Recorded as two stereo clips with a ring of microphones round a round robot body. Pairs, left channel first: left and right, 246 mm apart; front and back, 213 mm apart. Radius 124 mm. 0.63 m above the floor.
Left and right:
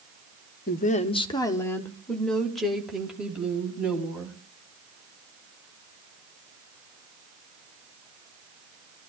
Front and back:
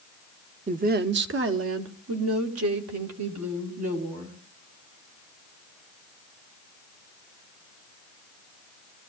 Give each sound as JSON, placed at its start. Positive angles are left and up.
{"t": 0.7, "sound": "a woman speaking", "azimuth_deg": 130, "distance_m": 0.8}